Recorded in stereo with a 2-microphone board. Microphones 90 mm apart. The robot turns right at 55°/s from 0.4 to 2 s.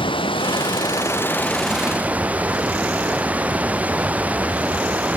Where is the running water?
105° left; by 5.2 s 165° right.